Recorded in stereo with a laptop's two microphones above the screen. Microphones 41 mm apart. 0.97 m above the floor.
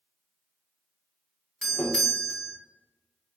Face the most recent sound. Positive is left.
turn(degrees=15)  # may be behind; listen again after turning